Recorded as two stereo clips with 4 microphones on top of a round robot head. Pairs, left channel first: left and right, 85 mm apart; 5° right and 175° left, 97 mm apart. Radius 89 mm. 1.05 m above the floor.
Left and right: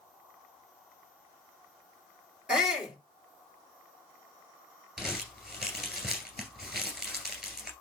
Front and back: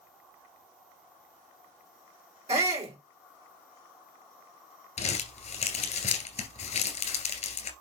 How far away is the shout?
About 3.5 m.